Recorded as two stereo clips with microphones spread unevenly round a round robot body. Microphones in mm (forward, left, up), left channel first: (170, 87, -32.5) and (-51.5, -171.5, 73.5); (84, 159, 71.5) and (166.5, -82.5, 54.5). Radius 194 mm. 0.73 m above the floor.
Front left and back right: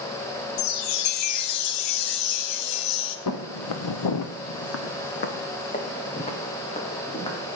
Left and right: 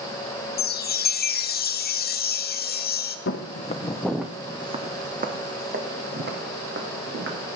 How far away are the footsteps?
About 1.0 m.